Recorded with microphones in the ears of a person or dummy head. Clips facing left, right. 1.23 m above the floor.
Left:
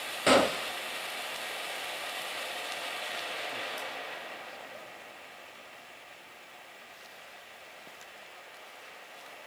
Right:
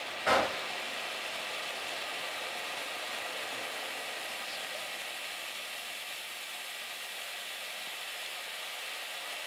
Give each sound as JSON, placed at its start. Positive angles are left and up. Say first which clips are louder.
{"t": 0.3, "sound": "a gunshot", "louder": "left 6 dB", "side_deg": 35, "distance_m": 0.7}